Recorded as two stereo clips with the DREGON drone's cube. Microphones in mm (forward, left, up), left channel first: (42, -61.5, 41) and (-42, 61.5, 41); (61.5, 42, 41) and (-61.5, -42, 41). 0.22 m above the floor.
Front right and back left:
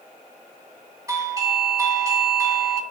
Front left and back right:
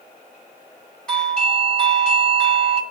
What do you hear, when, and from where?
1.1 s a doorbell: 110° left, 1.4 m